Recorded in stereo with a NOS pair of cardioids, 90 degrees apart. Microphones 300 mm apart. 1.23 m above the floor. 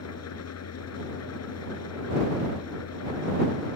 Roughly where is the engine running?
Ahead left.